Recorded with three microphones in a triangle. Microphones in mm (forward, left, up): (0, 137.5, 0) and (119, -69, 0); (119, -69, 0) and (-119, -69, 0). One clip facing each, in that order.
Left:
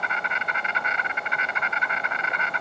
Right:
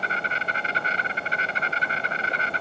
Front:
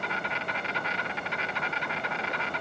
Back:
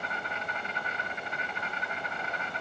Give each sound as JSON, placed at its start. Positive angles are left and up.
{"t": 0.0, "sound": "an insect", "azimuth_deg": 0, "distance_m": 0.7}